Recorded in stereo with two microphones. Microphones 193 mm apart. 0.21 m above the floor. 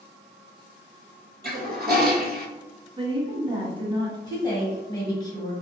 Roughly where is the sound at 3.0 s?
Right.